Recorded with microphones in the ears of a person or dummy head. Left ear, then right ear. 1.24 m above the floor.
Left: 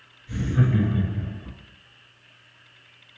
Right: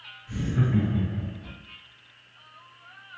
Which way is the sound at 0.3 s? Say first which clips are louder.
Left 3 dB; 5° left (ahead or behind).